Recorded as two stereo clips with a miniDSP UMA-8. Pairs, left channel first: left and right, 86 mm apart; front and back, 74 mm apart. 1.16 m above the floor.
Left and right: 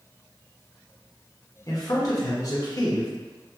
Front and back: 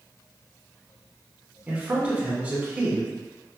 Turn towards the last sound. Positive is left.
turn(degrees=115)